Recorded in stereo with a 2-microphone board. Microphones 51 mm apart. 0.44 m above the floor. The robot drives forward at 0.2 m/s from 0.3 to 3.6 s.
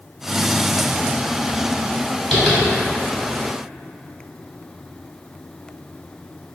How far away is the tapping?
About 1.8 m.